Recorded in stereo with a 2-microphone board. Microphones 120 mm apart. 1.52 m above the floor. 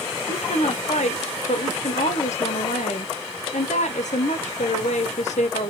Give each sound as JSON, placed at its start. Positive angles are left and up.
{"t": 0.3, "sound": "a woman speaking", "side_deg": 90, "distance_m": 0.8}